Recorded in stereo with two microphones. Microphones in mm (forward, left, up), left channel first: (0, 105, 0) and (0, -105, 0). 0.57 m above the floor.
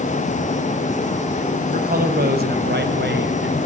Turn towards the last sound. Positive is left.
turn(degrees=-60)  # may be behind; listen again after turning